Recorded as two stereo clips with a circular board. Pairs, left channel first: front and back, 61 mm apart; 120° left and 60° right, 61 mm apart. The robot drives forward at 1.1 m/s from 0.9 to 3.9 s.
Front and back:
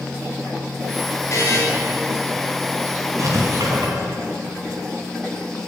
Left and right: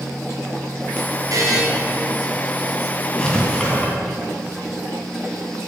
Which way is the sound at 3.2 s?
165° right.